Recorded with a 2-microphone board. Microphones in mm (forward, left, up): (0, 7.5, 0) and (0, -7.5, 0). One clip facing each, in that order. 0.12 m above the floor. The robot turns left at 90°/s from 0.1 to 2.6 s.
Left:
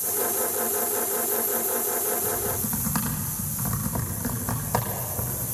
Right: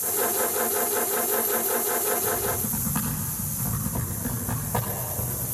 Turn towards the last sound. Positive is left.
turn(degrees=60)  # may be behind; listen again after turning